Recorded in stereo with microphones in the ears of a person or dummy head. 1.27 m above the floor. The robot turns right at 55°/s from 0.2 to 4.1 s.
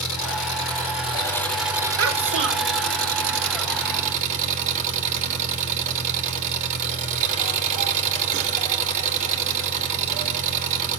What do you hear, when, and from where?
0.0 s an engine running: 105° left, 2.5 m; by 11.0 s 40° right, 2.5 m
2.0 s a child speaking: 90° right, 1.8 m; by 2.8 s 45° right, 1.8 m